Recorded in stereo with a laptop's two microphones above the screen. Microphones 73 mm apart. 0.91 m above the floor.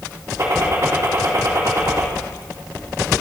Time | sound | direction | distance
0.4 | a gunshot | 45° right (ahead or behind) | 2.5 m